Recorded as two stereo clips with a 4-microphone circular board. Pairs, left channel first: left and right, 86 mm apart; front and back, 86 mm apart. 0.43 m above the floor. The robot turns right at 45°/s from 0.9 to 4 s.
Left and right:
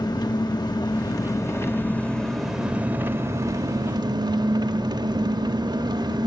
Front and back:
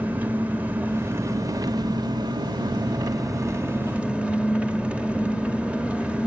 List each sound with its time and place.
0.0 s an engine running: 115° left, 0.8 m; by 6.3 s 110° right, 0.8 m